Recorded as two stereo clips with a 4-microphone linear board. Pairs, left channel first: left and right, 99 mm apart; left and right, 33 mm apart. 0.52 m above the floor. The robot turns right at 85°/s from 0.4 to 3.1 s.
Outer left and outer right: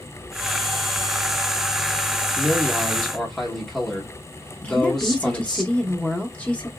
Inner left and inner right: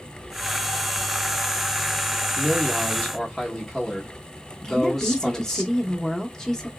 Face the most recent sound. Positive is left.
turn(degrees=15)  # may be behind; listen again after turning